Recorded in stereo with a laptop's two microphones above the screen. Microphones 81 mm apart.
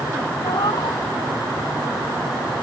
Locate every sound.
0.4 s a cat meowing: 70° left (ahead or behind)